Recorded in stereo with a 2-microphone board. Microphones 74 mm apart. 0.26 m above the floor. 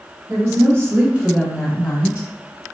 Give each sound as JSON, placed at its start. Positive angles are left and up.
{"t": 0.3, "sound": "a woman speaking", "side_deg": -45, "distance_m": 1.9}